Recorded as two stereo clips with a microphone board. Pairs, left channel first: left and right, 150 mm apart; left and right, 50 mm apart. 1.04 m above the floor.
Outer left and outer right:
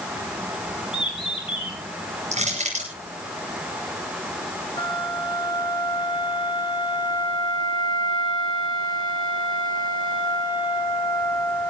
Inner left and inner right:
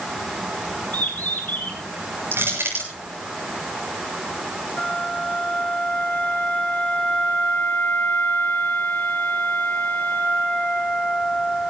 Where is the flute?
30° left (ahead or behind), 4.5 m.